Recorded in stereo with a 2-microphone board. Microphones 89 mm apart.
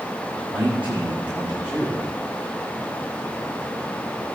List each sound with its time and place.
0.5 s a man speaking: 15° right (ahead or behind), 6 m